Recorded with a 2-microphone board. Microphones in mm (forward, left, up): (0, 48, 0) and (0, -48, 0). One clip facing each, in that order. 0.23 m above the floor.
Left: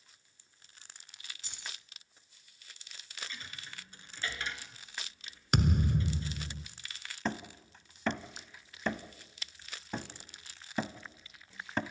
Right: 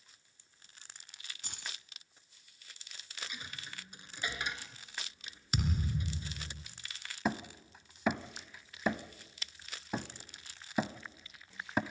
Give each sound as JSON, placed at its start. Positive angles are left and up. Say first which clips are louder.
{"t": 1.4, "sound": "keys jangling", "louder": "right 1 dB", "side_deg": -55, "distance_m": 1.4}
{"t": 3.2, "sound": "a dropped coin", "louder": "even", "side_deg": -15, "distance_m": 1.2}
{"t": 5.5, "sound": "a thud", "louder": "left 6 dB", "side_deg": 65, "distance_m": 1.0}
{"t": 7.2, "sound": "hammering", "louder": "right 2 dB", "side_deg": -10, "distance_m": 0.7}